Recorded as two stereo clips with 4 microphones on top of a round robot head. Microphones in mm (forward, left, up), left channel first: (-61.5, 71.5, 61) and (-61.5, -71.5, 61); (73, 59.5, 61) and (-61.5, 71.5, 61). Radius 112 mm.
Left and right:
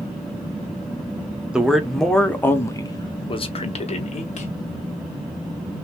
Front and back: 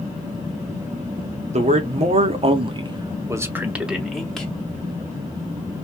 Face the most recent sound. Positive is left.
turn(degrees=75)